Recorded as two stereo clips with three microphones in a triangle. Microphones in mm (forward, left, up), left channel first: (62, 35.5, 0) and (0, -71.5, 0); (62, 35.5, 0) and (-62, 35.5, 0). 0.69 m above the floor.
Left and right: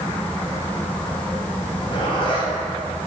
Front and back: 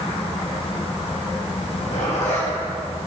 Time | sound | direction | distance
1.6 | a zipper | 15° left | 2.5 m